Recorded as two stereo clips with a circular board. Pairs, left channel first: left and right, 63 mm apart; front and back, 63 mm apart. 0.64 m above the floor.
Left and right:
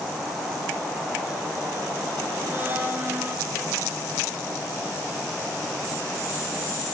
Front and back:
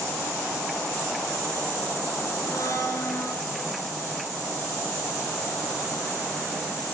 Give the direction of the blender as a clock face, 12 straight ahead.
1 o'clock.